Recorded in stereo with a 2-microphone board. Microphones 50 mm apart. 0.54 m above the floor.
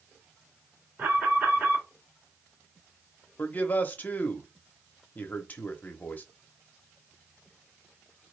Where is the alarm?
35° right (ahead or behind), 2 m.